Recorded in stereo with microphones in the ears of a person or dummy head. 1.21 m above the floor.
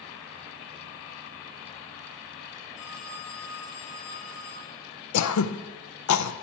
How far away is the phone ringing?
About 5.5 m.